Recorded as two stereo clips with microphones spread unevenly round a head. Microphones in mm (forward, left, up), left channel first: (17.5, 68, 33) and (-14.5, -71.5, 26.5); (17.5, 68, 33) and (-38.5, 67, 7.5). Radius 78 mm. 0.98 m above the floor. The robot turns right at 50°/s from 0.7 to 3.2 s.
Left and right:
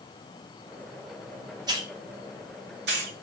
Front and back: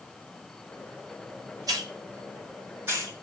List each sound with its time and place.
1.7 s a hiss: 170° right, 1.5 m; by 3.1 s 95° right, 1.5 m